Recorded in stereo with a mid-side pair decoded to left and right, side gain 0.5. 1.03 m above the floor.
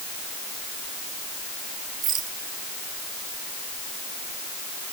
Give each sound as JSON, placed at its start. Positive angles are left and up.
{"t": 2.0, "sound": "a rattle", "azimuth_deg": -60}